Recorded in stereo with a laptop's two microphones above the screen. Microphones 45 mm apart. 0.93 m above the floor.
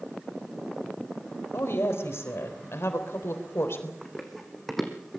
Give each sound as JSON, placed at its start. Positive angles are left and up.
{"t": 1.5, "sound": "a woman speaking", "side_deg": 75, "distance_m": 4.0}
{"t": 4.0, "sound": "running footsteps", "side_deg": 0, "distance_m": 3.5}